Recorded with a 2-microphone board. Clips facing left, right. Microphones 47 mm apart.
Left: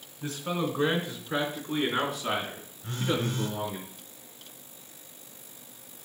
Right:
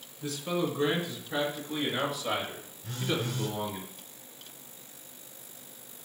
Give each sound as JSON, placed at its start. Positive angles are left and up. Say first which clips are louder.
{"t": 0.2, "sound": "a man speaking", "louder": "even", "side_deg": 45, "distance_m": 3.0}
{"t": 2.8, "sound": "a phone buzzing", "louder": "left 3 dB", "side_deg": 50, "distance_m": 4.0}